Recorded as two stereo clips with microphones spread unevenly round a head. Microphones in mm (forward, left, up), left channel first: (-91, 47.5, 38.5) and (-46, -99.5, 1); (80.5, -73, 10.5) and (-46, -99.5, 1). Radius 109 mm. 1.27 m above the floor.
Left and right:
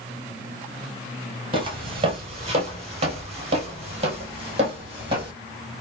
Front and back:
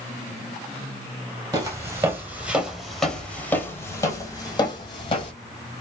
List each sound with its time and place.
1.5 s footsteps: 125° right, 1.5 m; by 5.3 s straight ahead, 1.8 m